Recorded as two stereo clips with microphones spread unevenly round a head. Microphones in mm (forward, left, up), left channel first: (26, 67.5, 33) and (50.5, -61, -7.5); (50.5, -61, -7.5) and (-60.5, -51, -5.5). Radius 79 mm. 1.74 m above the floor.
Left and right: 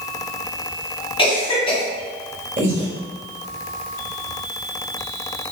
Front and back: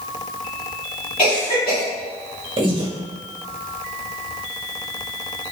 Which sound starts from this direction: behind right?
Breathing, at 2.6 s.